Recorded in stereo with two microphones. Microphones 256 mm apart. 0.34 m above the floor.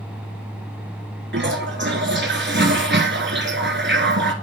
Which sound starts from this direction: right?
A toilet flushing, at 1.3 s.